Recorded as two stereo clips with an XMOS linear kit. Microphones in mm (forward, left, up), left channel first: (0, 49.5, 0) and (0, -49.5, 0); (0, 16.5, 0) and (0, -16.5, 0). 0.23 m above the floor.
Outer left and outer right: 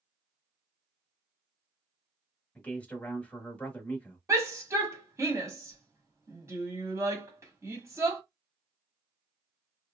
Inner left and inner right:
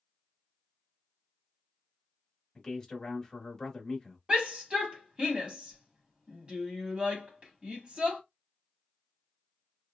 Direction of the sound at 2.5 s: 15° left (ahead or behind).